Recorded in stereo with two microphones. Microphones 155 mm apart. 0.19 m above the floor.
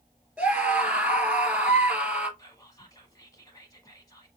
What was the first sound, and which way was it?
A scream, 10° right (ahead or behind).